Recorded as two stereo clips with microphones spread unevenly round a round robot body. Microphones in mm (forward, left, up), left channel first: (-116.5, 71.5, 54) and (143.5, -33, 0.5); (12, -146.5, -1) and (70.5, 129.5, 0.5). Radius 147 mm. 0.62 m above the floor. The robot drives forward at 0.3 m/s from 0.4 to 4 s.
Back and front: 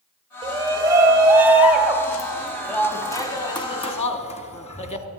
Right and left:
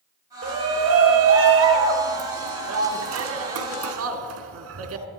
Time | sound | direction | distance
0.4 | a shout | 45° left | 1.8 m